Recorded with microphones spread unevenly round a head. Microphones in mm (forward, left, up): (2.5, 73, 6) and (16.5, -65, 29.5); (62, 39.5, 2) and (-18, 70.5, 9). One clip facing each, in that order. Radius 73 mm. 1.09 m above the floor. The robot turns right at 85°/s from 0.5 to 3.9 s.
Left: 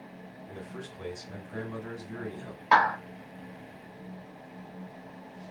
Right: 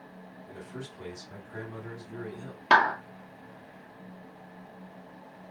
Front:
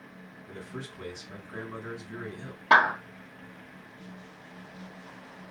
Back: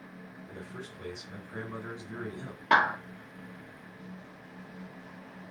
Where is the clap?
100° right, 1.2 m; by 3.0 s 80° right, 1.2 m.